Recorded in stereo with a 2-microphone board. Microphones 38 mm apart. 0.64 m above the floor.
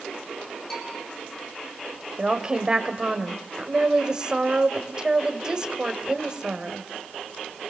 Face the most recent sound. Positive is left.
turn(degrees=-20)  # may be behind; listen again after turning